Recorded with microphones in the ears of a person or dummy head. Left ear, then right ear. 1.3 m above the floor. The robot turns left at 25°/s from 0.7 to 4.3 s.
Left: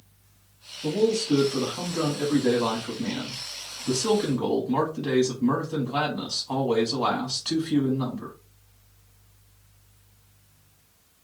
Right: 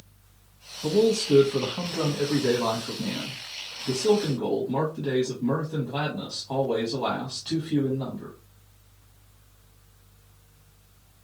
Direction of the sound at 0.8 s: 125° right.